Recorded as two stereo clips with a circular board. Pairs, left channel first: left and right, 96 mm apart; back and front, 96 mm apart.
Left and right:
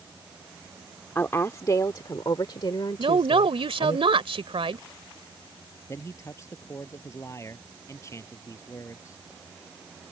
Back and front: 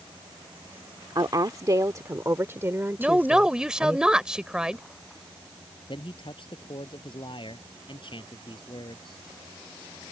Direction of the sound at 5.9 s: 150° left.